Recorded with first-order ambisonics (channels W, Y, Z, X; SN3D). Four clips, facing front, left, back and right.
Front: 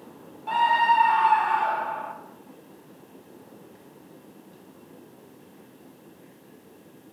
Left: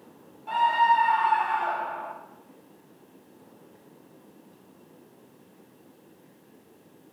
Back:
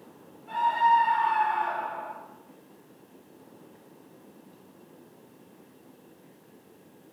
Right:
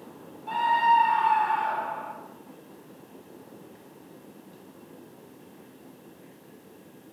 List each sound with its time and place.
0.5 s a scream: 5° right, 1.9 m